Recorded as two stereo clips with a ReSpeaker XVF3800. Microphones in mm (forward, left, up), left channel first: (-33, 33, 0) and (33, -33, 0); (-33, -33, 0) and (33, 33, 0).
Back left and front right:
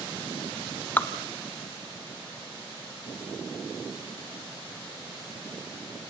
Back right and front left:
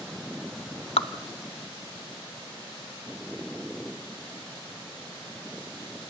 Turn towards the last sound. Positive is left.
turn(degrees=-155)